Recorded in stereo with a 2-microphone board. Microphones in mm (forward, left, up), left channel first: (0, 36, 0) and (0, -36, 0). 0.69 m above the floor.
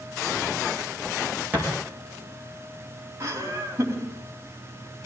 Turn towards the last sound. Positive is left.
turn(degrees=-40)  # may be behind; listen again after turning